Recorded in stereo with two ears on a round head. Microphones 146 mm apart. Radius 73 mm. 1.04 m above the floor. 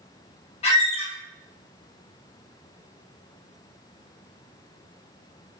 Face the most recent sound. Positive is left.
turn(degrees=40)  # may be behind; listen again after turning